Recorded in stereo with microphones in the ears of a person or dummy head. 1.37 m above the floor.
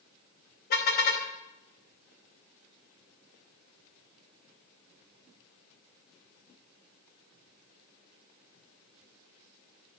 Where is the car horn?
60° left (ahead or behind), 4 m.